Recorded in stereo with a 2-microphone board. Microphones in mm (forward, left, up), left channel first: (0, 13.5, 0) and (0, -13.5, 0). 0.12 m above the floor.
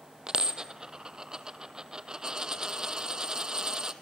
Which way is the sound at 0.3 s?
30° right (ahead or behind).